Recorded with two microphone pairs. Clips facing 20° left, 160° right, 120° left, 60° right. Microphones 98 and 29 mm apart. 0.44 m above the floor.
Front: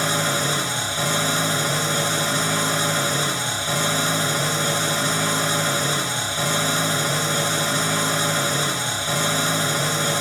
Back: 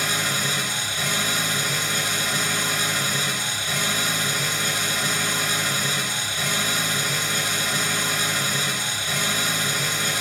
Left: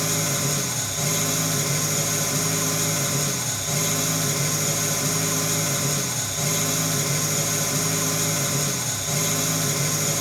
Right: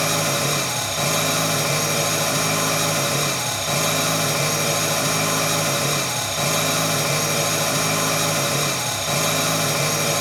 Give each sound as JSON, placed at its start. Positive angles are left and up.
{"t": 0.0, "sound": "an engine running", "azimuth_deg": -30, "distance_m": 0.9}